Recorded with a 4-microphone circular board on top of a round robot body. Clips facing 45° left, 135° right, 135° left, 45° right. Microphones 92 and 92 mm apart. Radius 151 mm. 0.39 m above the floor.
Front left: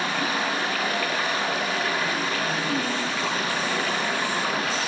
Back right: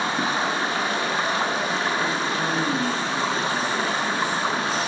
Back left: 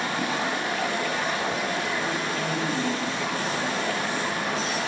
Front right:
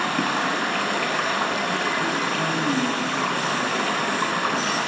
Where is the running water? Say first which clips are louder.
Back right 2 dB, front right 4 dB; 70° right, 6.5 m.